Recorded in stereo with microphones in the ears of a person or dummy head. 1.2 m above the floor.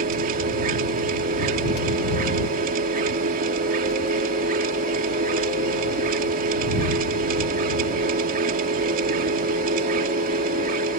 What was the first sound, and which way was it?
A machine running, 45° right (ahead or behind).